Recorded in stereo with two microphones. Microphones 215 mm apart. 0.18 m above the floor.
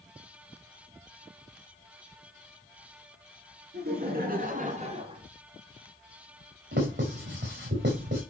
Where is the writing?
60° right (ahead or behind), 6.5 m.